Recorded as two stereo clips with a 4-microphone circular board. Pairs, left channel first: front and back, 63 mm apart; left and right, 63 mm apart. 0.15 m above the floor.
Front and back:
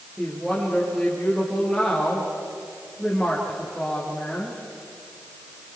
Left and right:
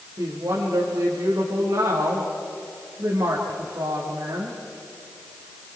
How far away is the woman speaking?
About 6 m.